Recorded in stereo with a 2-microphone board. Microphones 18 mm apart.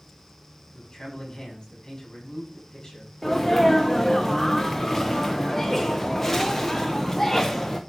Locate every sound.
0.7 s a man speaking: 30° left (ahead or behind), 6 m
3.2 s a sneeze: 10° left (ahead or behind), 0.7 m